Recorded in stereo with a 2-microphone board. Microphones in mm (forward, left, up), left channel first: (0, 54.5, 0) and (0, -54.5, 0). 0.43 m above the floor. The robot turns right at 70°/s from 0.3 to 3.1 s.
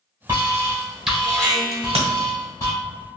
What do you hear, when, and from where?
0.3 s an alarm: 65° right, 1.4 m; by 2.7 s 105° left, 1.4 m
1.7 s a crack: 55° right (ahead or behind), 1.3 m; by 2.1 s 70° right (ahead or behind), 1.3 m